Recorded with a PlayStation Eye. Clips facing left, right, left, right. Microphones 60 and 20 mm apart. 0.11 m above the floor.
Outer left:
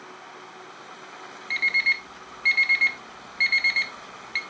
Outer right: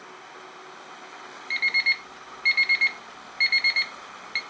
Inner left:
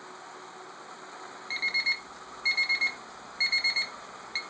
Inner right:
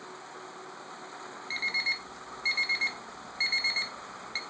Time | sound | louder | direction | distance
1.5 | an alarm clock | outer left 1 dB, inner left 2 dB | centre (ahead or behind) | 0.9 m